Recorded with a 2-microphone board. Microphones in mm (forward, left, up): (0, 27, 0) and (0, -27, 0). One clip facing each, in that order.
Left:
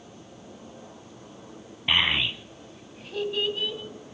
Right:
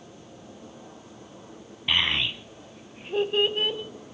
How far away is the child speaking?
About 0.9 m.